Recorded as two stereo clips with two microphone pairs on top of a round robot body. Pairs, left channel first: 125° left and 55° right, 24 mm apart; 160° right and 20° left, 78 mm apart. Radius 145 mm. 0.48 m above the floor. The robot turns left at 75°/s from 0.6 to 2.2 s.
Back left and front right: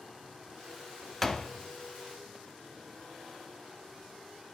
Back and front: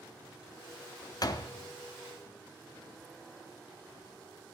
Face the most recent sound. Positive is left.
turn(degrees=125)